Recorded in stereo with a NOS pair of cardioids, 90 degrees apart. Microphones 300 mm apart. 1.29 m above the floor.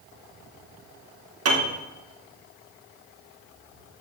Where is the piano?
50° right, 3 m.